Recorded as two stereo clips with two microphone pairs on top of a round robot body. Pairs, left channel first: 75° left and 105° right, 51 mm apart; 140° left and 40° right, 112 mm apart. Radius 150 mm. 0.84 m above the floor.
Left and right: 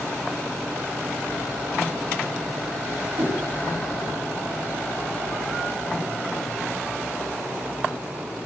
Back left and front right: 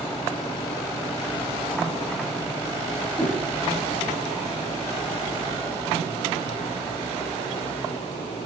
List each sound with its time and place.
3.2 s a whoosh: 140° right, 7 m